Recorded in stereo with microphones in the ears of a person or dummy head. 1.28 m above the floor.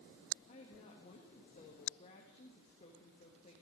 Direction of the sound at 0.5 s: 35° left (ahead or behind).